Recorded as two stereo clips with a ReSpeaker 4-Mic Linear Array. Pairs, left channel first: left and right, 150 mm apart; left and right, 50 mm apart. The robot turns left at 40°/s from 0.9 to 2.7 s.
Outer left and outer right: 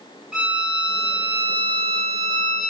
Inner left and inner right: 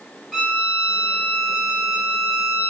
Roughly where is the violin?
Centre.